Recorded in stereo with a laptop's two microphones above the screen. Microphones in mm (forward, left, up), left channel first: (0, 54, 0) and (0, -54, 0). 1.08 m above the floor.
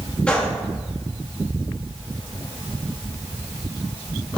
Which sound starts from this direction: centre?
A gunshot, at 0.3 s.